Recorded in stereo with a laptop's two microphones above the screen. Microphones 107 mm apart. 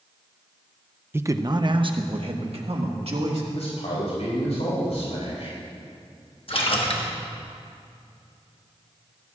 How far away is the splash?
About 1.2 m.